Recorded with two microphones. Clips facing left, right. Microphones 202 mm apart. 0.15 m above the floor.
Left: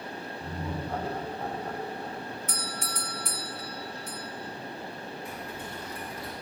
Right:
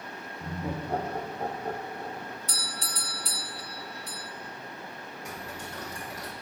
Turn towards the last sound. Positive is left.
turn(degrees=-80)